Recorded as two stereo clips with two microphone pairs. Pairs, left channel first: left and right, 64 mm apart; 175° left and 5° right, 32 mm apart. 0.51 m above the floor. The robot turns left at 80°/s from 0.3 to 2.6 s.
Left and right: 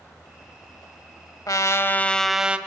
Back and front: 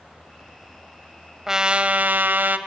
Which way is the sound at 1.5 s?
70° left.